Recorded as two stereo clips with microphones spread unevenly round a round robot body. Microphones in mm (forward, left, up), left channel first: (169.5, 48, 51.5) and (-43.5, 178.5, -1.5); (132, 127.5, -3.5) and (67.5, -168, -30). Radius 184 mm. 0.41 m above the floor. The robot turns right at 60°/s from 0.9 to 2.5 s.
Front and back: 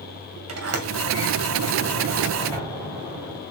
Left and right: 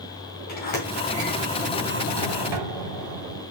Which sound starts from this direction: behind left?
A sliding door, at 0.5 s.